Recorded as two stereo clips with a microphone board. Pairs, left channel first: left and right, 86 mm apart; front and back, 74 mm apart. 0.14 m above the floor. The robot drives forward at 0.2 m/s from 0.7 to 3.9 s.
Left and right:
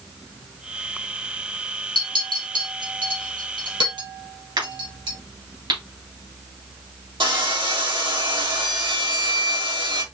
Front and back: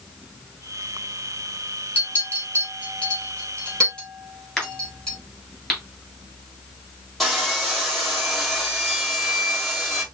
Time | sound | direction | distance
1.9 | a clink | 65° right | 2.5 m
4.6 | a crack | 80° right | 2.5 m
7.2 | sawing | 90° right | 2.5 m